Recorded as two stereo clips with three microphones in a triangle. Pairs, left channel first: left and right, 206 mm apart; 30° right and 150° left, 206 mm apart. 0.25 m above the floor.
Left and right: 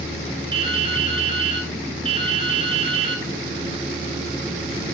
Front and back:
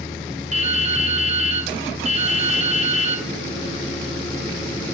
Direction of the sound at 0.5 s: 155° right.